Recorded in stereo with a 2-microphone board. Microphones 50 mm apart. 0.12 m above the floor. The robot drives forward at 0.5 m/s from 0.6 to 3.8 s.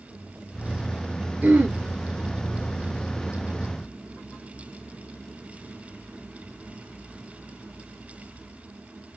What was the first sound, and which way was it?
Throat clearing, 30° right (ahead or behind).